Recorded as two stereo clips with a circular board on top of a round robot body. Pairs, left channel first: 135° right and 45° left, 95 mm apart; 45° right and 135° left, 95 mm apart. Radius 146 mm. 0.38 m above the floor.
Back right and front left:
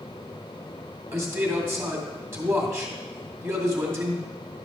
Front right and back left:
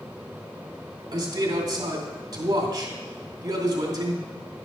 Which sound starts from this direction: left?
A man speaking, at 1.1 s.